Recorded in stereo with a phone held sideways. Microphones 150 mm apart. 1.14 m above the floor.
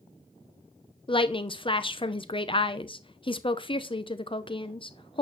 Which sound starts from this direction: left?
A woman speaking, at 1.1 s.